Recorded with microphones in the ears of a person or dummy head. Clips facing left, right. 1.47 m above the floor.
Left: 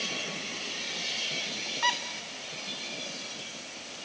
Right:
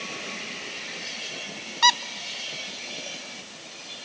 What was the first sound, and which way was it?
A squeak, 60° right (ahead or behind).